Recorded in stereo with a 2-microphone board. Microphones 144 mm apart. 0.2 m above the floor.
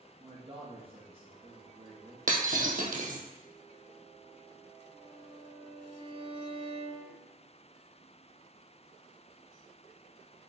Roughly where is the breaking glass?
Right.